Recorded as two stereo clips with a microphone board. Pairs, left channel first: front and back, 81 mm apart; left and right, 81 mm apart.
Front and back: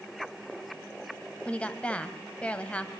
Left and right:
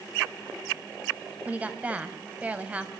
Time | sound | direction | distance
1.4 | a woman speaking | 50° right | 1.3 m